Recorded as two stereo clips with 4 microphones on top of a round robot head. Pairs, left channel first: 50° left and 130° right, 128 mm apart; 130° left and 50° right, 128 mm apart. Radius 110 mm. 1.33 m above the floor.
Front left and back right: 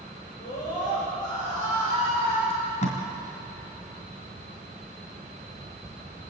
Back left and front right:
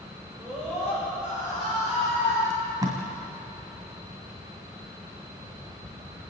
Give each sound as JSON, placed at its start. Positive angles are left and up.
{"t": 0.4, "sound": "a scream", "azimuth_deg": 30, "distance_m": 8.0}
{"t": 2.5, "sound": "tape being pulled", "azimuth_deg": 15, "distance_m": 2.5}